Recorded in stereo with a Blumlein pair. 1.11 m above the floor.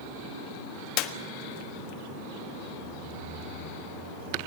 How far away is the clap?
About 1.4 m.